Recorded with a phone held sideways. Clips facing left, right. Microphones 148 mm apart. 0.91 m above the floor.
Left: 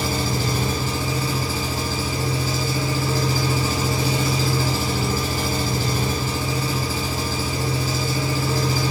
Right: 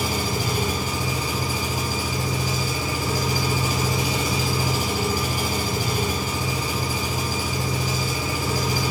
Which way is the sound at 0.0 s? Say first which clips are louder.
Left 2 dB; 15° right (ahead or behind).